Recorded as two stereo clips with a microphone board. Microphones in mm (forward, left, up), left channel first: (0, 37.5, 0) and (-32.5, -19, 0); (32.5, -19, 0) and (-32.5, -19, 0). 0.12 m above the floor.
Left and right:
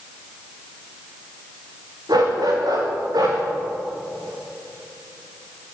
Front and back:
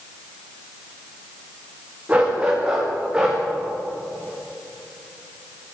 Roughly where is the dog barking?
Right.